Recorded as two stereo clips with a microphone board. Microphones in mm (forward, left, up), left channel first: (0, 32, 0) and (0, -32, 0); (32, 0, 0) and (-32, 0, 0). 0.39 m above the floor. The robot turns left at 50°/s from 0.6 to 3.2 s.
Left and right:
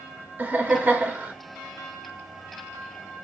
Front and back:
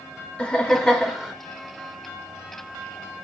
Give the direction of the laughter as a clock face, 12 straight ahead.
2 o'clock.